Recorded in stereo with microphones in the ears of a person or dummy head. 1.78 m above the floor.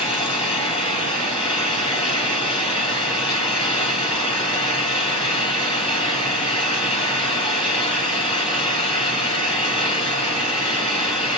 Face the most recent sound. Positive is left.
turn(degrees=25)  # may be behind; listen again after turning